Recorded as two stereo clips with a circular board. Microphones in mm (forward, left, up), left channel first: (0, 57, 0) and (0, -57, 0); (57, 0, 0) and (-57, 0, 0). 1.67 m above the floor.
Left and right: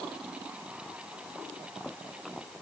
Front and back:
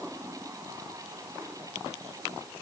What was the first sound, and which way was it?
Only background noise.